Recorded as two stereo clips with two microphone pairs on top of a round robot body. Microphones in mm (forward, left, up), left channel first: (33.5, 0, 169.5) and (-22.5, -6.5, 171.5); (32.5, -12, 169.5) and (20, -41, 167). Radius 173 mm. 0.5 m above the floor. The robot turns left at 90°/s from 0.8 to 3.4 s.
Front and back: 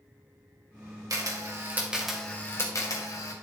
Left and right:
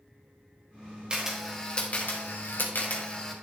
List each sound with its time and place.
1.1 s a camera shutter: 175° right, 2 m; by 3.3 s 15° right, 2 m